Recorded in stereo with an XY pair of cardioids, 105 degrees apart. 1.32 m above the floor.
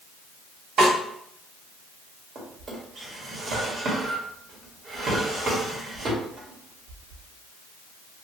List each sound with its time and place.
0.8 s a snare drum: 70° right, 1.8 m
2.4 s a drawer: 50° right, 1.6 m